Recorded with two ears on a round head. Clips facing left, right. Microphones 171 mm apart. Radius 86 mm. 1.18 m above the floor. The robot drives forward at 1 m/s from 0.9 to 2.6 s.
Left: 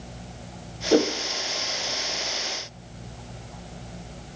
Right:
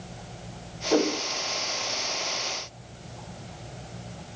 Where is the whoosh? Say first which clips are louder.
Left 3 dB; 25° left (ahead or behind), 0.6 m; by 1.1 s 20° left (ahead or behind), 0.7 m.